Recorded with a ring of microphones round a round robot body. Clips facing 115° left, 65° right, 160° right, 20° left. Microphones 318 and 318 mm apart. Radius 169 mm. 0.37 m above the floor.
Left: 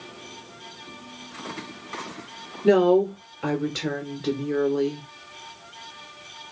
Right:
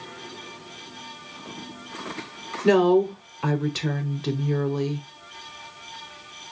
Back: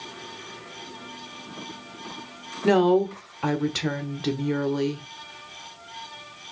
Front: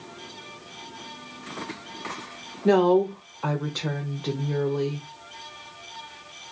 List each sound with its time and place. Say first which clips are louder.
2.6 s a woman speaking: even, even; 140° right, 1.2 m